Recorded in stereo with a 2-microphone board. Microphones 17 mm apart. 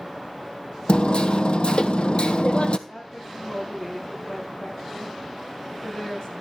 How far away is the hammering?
About 0.9 m.